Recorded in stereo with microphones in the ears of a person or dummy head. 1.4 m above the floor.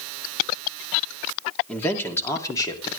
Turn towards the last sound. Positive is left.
turn(degrees=25)  # may be behind; listen again after turning